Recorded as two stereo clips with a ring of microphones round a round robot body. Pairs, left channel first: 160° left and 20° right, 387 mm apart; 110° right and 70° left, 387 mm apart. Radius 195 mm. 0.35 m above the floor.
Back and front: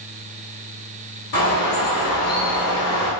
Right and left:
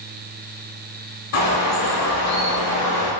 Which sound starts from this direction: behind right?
A bird, at 1.3 s.